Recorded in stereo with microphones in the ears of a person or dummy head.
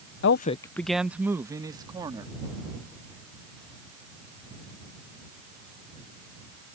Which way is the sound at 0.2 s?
70° left (ahead or behind).